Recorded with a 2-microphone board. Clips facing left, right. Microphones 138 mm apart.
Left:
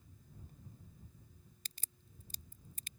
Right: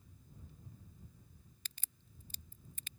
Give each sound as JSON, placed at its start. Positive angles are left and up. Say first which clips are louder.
{"t": 1.6, "sound": "a crack", "louder": "left 2 dB", "side_deg": 40}